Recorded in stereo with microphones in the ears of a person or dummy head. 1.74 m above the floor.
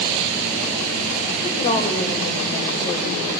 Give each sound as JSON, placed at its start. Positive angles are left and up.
{"t": 1.4, "sound": "a woman speaking", "side_deg": 30, "distance_m": 0.8}